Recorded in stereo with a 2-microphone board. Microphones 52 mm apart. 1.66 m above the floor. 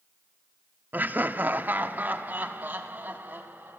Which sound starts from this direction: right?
Laughter, at 0.9 s.